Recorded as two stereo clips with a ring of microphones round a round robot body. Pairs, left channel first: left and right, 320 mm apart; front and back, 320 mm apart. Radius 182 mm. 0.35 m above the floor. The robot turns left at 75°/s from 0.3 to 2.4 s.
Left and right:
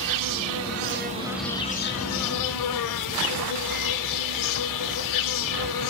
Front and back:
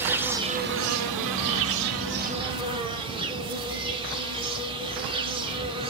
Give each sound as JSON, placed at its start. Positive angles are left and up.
{"t": 0.0, "sound": "an insect", "azimuth_deg": -95, "distance_m": 0.9}